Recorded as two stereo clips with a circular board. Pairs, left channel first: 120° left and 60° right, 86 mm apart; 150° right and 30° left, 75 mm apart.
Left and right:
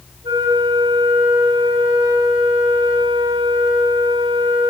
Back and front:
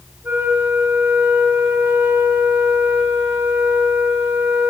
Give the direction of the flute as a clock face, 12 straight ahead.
1 o'clock.